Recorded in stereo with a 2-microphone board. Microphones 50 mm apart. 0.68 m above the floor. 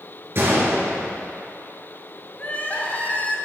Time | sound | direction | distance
0.3 | a gunshot | 55° right (ahead or behind) | 3.5 m
2.4 | crying | 35° left (ahead or behind) | 1.3 m